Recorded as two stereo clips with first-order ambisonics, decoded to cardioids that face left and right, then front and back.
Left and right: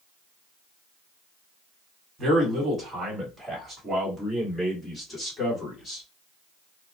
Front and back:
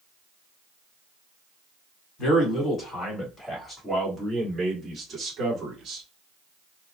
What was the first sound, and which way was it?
A man speaking, 25° right.